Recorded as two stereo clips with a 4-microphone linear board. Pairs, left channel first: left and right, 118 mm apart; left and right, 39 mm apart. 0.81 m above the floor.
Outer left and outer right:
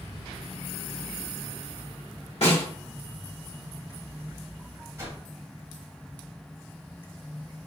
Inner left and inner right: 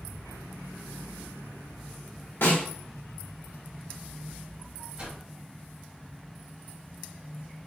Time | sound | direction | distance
2.4 | a snare drum | 70° left (ahead or behind) | 1.5 m
5.0 | a whoosh | 30° right (ahead or behind) | 0.9 m